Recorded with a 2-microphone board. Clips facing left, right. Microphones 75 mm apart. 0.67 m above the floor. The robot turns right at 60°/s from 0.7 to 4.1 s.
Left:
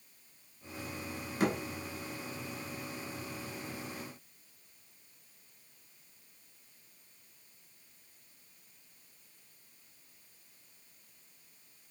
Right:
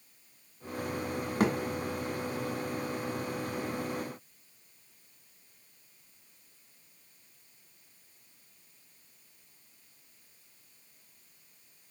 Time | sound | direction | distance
1.4 | a thud | 55° right (ahead or behind) | 1.5 m